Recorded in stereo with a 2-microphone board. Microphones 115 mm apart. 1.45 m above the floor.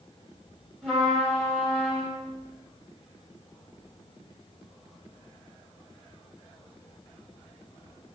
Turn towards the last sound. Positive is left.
turn(degrees=5)  # may be behind; listen again after turning